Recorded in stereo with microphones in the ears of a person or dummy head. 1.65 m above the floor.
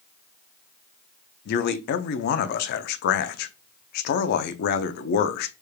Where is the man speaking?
60° left (ahead or behind), 0.5 m.